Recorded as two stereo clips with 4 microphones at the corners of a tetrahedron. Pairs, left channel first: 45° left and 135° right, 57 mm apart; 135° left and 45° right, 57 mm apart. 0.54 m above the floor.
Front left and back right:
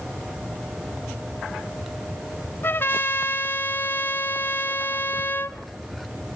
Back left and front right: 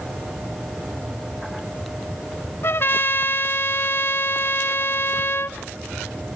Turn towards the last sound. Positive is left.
turn(degrees=95)